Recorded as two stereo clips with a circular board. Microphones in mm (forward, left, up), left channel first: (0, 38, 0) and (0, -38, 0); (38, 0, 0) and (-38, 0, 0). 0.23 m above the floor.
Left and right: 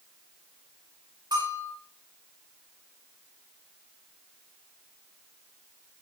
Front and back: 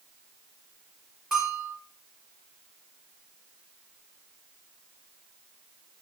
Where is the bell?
95° right, 6 m.